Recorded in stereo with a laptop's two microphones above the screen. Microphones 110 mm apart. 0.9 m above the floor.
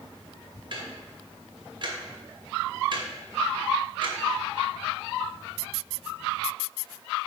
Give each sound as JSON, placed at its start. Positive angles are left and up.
{"t": 0.7, "sound": "ticking", "side_deg": -45, "distance_m": 1.2}